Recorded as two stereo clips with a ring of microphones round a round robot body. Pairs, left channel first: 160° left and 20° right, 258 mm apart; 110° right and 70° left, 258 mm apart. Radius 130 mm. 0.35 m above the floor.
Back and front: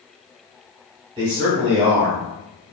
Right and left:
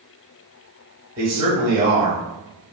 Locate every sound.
1.2 s a man speaking: 20° left, 1.0 m